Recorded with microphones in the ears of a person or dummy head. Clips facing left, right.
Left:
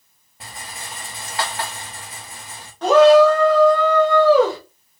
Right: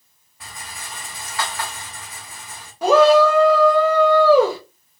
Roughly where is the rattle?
Left.